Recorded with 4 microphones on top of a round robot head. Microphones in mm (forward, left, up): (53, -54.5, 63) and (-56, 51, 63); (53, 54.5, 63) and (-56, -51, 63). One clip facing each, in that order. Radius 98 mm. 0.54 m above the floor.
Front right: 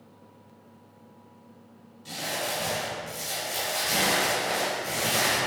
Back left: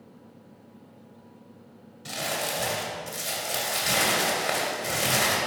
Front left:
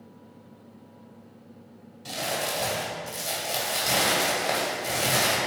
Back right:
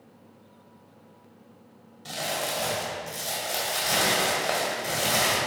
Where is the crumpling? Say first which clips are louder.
Back left 1 dB, front left 1 dB; 125° left, 2.0 m.